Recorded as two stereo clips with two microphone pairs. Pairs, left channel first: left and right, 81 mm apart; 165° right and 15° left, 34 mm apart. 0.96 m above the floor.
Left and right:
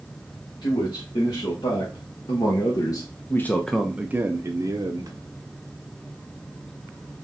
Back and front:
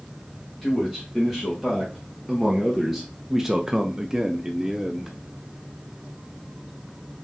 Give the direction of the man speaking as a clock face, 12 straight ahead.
8 o'clock.